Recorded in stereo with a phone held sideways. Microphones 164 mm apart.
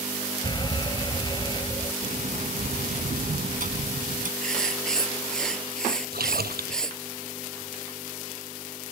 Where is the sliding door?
60° right (ahead or behind).